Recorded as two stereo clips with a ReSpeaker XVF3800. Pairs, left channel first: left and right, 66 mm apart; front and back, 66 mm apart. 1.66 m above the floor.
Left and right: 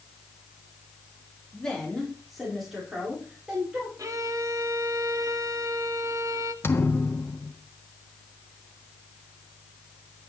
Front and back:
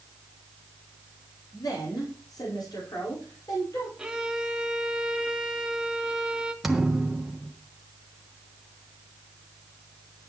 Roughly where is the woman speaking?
Ahead.